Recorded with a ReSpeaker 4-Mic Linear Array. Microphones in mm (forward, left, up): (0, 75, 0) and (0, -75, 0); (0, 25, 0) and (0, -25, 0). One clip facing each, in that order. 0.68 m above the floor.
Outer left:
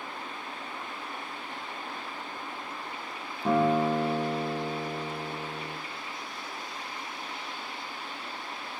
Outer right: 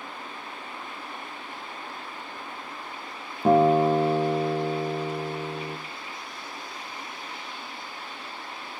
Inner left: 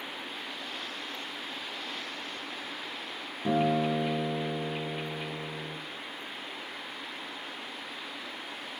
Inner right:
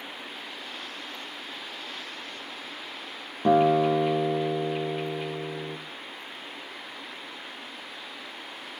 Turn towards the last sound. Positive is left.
turn(degrees=-50)  # may be behind; listen again after turning